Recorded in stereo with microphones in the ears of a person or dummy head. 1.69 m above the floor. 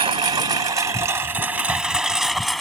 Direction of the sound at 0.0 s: 30° right (ahead or behind).